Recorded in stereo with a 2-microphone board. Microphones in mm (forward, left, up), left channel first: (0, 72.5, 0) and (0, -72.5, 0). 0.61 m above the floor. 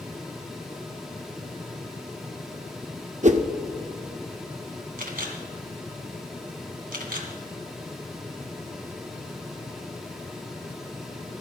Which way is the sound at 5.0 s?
75° right (ahead or behind).